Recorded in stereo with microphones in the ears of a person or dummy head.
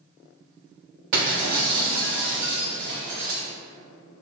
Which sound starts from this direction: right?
Breaking glass, at 1.1 s.